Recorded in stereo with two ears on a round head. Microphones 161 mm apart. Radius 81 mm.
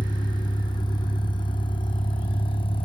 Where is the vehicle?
25° left (ahead or behind); by 2.9 s 30° left (ahead or behind).